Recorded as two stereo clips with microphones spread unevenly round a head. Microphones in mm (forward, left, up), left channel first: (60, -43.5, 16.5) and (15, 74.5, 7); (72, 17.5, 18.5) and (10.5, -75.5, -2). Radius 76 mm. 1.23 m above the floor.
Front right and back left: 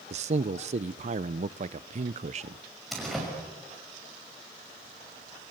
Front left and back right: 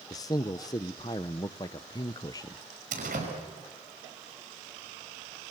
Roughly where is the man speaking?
Behind left.